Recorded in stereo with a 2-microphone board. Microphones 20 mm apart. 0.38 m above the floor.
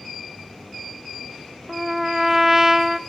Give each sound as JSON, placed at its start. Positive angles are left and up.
{"t": 1.7, "sound": "a trumpet", "side_deg": -15, "distance_m": 0.7}